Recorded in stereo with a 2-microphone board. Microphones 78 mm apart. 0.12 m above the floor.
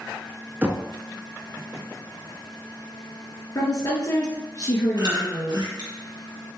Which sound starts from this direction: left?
A woman speaking, at 3.5 s.